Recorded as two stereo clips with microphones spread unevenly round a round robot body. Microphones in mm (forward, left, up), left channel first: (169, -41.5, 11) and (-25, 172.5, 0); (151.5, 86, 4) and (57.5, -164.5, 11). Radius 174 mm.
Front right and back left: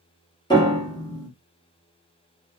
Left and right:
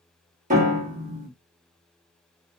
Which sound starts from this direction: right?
A piano, at 0.5 s.